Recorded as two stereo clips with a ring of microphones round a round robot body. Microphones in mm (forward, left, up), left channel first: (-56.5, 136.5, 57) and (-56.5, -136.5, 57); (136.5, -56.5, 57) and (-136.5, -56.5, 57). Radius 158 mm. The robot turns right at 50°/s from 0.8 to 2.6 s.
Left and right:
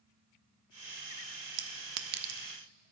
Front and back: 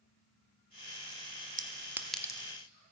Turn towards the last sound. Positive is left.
turn(degrees=-65)